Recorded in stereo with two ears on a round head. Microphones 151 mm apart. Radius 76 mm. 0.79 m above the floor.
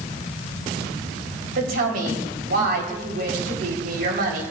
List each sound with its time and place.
1.6 s a woman speaking: 60° right (ahead or behind), 4 m